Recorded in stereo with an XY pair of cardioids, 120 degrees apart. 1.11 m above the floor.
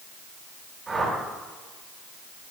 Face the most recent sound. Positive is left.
turn(degrees=-15)